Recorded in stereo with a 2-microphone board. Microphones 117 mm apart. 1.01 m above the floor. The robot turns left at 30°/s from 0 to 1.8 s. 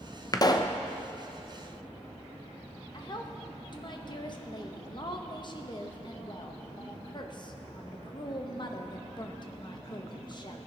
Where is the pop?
30° left (ahead or behind), 0.5 m; by 0.8 s 40° left (ahead or behind), 0.5 m.